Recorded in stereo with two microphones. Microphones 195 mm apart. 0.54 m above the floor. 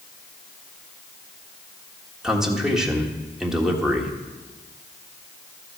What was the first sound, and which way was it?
A man speaking, 5° right (ahead or behind).